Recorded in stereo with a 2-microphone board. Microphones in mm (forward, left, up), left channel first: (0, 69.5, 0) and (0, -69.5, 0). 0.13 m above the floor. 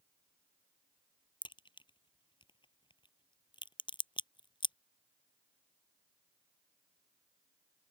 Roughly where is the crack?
Left.